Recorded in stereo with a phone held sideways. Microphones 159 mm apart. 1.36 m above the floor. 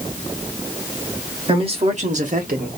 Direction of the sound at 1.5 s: 35° right (ahead or behind).